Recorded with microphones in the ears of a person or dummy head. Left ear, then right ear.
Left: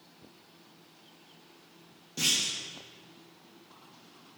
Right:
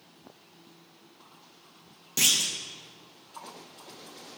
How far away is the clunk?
About 0.7 m.